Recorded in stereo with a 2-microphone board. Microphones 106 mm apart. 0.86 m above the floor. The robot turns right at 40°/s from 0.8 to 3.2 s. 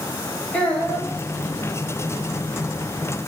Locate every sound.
0.5 s a child speaking: 15° left (ahead or behind), 4 m; by 1.1 s centre (ahead or behind), 4 m